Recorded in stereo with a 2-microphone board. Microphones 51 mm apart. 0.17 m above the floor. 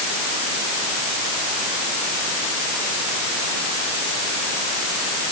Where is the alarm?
I don't hear an alarm.